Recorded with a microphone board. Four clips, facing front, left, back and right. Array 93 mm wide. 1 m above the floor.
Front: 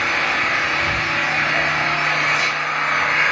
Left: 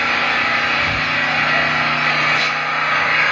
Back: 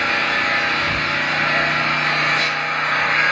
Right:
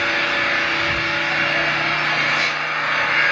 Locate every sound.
0.0 s an engine running: 70° left, 1.1 m